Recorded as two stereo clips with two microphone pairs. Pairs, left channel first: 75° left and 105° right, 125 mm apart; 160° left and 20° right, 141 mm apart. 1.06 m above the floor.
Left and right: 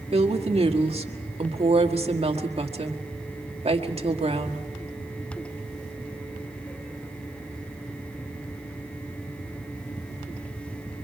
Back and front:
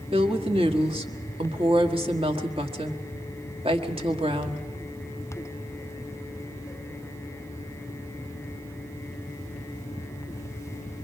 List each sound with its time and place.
0.1 s a woman speaking: 70° right, 1.6 m